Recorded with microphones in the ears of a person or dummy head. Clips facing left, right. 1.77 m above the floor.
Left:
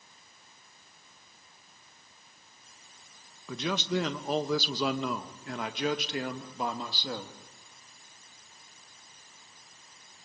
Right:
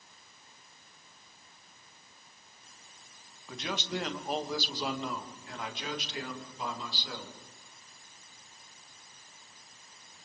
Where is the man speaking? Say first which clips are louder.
Left 6 dB; 75° left (ahead or behind), 2 m; by 7.4 s 50° left (ahead or behind), 3 m.